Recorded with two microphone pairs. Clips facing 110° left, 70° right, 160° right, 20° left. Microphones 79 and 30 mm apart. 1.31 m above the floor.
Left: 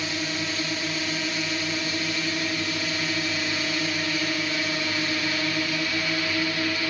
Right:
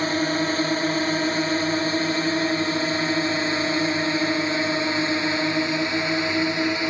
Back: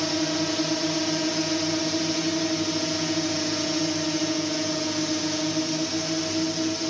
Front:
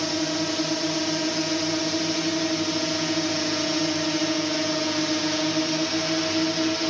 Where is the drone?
70° right; by 6.9 s 20° right.